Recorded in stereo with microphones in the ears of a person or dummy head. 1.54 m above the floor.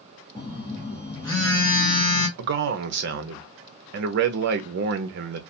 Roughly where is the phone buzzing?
Centre.